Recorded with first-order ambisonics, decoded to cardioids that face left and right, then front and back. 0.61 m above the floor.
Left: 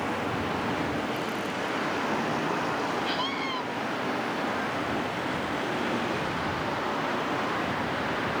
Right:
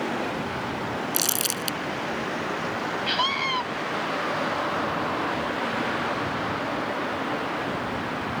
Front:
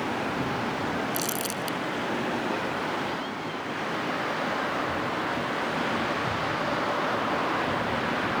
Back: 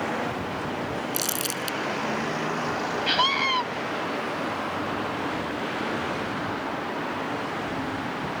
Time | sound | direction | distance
1.1 | crumpling | 105° right | ?
3.1 | a scream | 155° right | ?